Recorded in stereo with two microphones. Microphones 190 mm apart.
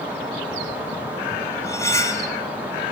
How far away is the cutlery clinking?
About 0.7 m.